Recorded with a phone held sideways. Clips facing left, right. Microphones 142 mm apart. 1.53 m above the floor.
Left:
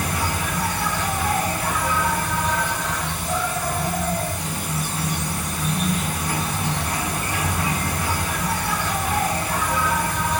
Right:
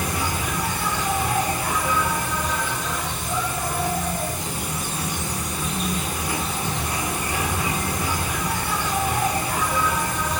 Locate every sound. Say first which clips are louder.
0.0 s an insect: left 1 dB; 65° left (ahead or behind), 4 m